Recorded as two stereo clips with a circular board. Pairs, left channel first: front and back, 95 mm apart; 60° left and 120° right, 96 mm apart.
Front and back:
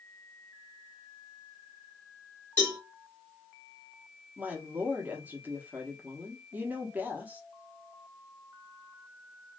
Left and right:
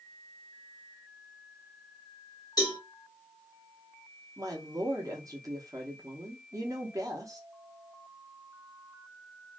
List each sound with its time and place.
2.6 s a cowbell: 55° left, 1.6 m
4.4 s a woman speaking: 120° right, 0.8 m